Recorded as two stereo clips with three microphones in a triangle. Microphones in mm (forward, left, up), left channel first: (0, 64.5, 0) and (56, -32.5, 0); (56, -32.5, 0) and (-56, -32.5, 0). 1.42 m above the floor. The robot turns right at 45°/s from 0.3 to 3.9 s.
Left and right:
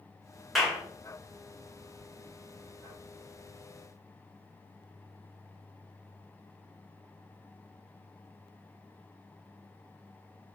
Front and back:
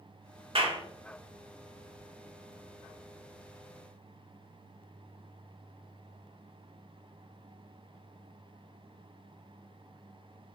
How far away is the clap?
About 1.2 m.